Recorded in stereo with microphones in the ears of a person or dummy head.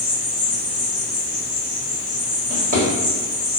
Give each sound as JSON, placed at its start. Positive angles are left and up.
{"t": 0.0, "sound": "an insect", "side_deg": -5, "distance_m": 1.1}
{"t": 2.5, "sound": "a drawer", "side_deg": -45, "distance_m": 1.1}